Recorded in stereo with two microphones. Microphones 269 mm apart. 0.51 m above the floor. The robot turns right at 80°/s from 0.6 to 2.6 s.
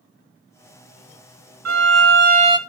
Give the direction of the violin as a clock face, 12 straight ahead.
3 o'clock.